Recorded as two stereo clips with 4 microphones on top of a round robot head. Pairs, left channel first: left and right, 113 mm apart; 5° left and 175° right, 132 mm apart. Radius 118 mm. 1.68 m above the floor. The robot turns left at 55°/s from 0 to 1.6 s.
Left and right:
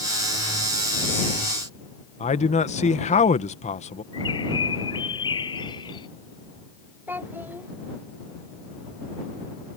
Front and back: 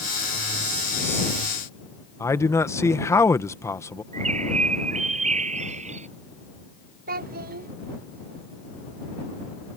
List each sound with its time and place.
2.2 s a man speaking: 75° left
4.1 s a bird: 150° left
7.1 s a child speaking: 170° right